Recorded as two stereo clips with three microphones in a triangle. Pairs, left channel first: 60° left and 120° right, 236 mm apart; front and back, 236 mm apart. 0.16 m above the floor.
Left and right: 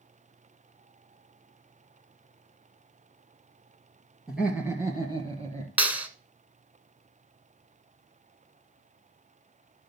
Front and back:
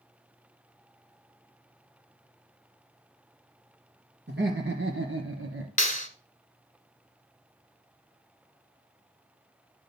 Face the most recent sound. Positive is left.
turn(degrees=-40)